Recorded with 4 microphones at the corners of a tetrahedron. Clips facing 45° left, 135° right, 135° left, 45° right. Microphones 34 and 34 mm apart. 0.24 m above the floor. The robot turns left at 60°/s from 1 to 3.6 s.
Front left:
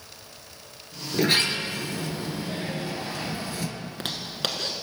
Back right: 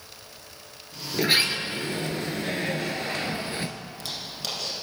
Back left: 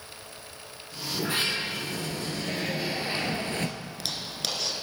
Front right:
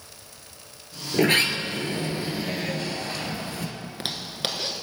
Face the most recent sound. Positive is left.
turn(degrees=15)